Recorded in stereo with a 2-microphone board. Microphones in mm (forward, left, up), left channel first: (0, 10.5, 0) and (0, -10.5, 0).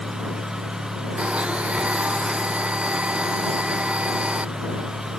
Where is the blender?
85° right.